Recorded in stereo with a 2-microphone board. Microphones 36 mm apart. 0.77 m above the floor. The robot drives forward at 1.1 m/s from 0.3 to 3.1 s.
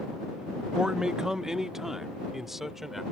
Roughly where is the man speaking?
Right.